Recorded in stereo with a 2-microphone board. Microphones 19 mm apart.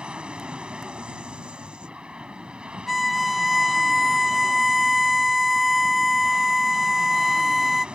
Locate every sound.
0.0 s an aircraft: 70° right (ahead or behind)
2.9 s a violin: centre (ahead or behind)